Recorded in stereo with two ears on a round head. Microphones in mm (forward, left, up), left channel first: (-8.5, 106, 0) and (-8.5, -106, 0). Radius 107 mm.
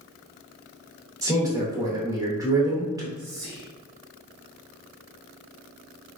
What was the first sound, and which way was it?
A man speaking, 15° right (ahead or behind).